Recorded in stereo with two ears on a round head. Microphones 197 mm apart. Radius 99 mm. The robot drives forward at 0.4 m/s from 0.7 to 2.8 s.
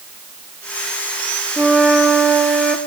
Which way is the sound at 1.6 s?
Centre (ahead or behind).